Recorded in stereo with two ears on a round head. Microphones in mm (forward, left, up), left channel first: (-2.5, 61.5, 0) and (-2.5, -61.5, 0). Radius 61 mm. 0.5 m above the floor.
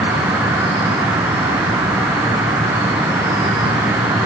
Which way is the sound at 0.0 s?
15° right (ahead or behind).